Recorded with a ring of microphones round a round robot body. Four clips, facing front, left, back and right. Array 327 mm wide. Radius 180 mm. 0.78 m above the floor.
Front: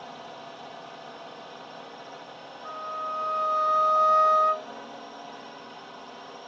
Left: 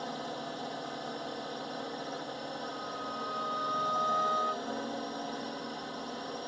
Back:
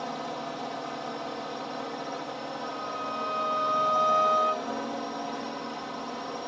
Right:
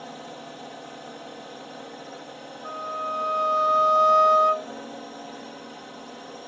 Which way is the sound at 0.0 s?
170° left.